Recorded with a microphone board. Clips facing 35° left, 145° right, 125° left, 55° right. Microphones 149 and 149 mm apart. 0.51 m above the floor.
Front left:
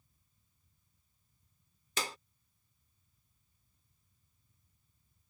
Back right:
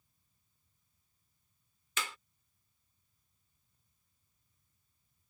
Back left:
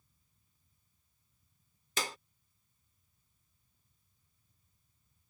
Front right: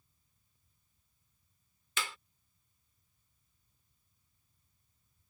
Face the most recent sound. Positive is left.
turn(degrees=80)